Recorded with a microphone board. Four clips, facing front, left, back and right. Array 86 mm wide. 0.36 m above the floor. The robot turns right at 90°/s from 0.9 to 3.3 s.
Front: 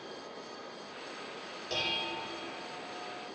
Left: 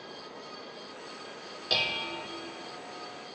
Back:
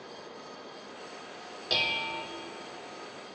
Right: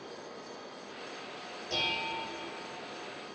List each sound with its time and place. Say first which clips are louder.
1.7 s dishes clattering: left 1 dB, back 3 dB; 120° left, 0.9 m; by 2.2 s 165° left, 0.9 m